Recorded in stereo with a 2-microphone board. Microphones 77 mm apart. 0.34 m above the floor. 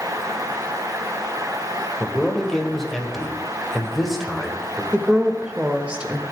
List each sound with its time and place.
2.0 s a man speaking: centre (ahead or behind), 1.7 m
4.9 s a woman speaking: 15° right (ahead or behind), 0.9 m